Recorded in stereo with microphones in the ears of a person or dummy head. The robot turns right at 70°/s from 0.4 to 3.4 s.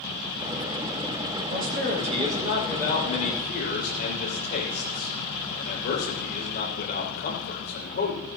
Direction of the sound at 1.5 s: 80° right.